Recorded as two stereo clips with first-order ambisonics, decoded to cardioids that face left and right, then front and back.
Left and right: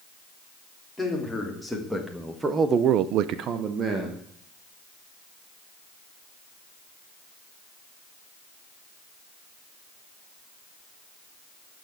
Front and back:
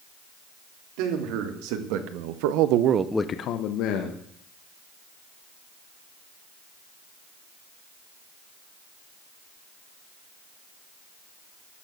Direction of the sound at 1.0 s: 175° left.